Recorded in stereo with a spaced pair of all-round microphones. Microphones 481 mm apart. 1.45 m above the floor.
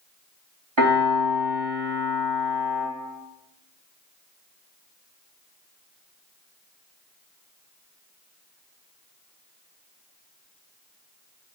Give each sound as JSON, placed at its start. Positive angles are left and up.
{"t": 0.8, "sound": "a piano", "side_deg": -65, "distance_m": 1.7}